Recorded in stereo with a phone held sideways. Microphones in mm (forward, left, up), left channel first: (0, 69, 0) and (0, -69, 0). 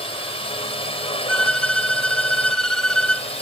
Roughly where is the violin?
Centre.